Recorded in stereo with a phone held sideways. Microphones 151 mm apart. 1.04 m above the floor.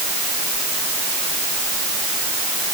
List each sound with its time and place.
Only background noise.